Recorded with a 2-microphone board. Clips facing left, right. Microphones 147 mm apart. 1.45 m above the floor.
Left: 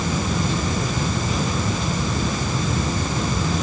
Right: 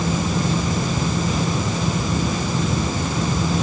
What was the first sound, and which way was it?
Only background noise.